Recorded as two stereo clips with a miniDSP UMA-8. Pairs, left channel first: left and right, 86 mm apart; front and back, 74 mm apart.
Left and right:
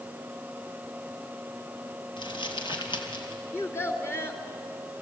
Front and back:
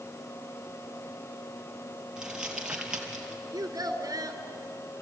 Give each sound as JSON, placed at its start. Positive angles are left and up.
{"t": 2.2, "sound": "crumpling", "azimuth_deg": 100, "distance_m": 3.0}
{"t": 3.5, "sound": "a child speaking", "azimuth_deg": 150, "distance_m": 2.5}